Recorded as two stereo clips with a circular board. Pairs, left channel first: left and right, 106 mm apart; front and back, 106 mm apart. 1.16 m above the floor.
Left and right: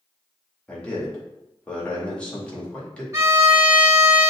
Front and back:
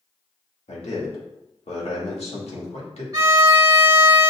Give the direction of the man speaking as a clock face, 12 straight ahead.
12 o'clock.